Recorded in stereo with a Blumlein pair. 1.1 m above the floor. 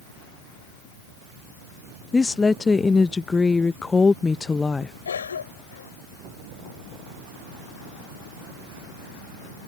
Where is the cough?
70° left.